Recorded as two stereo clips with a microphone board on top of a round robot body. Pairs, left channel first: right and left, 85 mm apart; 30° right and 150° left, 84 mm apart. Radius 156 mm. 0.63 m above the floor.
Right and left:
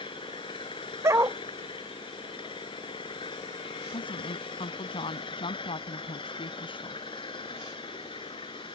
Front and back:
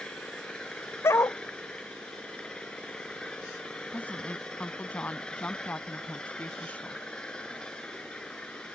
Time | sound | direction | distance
0.0 | an engine running | 110° right | ?
1.0 | a dog barking | 30° left | ?
3.9 | a woman speaking | 105° right | ?